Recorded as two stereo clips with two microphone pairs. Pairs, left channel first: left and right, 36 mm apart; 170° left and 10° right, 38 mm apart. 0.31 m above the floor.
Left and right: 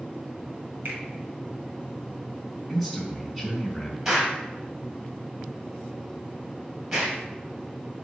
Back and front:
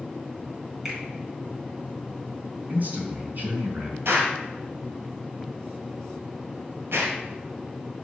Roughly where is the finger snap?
Right.